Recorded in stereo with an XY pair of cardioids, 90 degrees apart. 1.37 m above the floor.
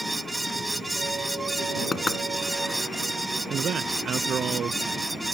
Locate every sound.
0.0 s a fan: 15° right
1.9 s knocking: 30° left
3.5 s a man speaking: 65° right